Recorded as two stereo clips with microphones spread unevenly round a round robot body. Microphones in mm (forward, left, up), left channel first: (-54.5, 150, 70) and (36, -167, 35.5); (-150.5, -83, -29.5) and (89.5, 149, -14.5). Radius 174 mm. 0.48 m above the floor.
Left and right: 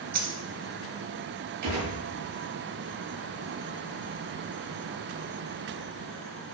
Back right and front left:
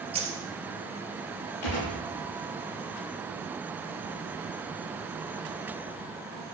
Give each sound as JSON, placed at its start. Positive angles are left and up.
{"t": 0.1, "sound": "a dropped coin", "azimuth_deg": -30, "distance_m": 2.0}
{"t": 1.6, "sound": "a gunshot", "azimuth_deg": -110, "distance_m": 7.5}